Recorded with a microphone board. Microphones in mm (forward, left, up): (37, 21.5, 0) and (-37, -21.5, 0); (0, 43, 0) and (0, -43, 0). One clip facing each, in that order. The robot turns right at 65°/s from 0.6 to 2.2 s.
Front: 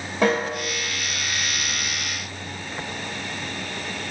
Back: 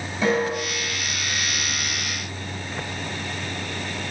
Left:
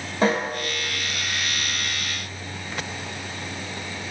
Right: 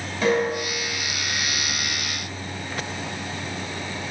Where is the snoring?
I don't hear snoring.